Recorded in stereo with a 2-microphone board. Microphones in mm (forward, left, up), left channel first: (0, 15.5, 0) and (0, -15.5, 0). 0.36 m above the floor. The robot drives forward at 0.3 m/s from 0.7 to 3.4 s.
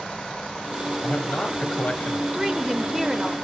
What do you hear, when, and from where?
1.0 s a man speaking: 35° left (ahead or behind), 1.3 m
2.3 s a woman speaking: 20° right (ahead or behind), 0.8 m